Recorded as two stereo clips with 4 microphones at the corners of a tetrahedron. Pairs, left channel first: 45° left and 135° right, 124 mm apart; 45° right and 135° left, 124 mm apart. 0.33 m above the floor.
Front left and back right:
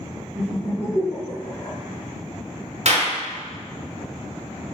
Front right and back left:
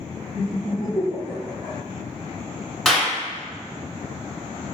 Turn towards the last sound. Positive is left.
turn(degrees=-130)